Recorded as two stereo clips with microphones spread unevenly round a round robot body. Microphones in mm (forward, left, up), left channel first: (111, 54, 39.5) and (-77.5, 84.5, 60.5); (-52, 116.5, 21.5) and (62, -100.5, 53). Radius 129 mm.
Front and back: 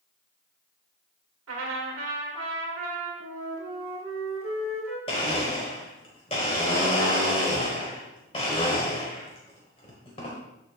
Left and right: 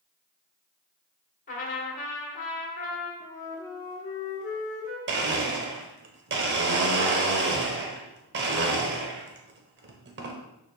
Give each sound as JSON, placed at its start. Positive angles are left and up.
{"t": 1.5, "sound": "a trumpet", "azimuth_deg": 180, "distance_m": 1.6}
{"t": 3.2, "sound": "a flute", "azimuth_deg": 180, "distance_m": 1.9}
{"t": 5.1, "sound": "a blender", "azimuth_deg": -80, "distance_m": 0.8}